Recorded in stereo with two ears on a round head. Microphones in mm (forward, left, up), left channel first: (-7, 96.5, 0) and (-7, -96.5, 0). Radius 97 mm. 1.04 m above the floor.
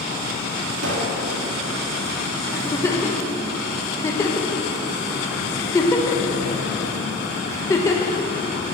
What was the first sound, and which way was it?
A pop, 65° right (ahead or behind).